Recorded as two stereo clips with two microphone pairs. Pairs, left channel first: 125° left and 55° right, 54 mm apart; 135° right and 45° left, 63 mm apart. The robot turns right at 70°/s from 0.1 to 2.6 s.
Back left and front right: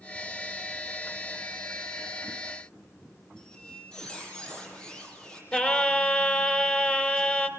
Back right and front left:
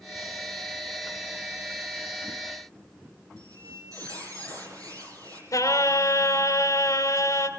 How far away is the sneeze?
I don't hear a sneeze.